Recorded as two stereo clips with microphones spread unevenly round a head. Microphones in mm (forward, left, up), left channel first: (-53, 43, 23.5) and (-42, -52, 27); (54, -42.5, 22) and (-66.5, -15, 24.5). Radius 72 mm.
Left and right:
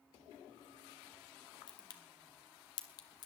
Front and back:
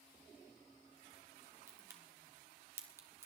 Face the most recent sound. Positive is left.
turn(degrees=105)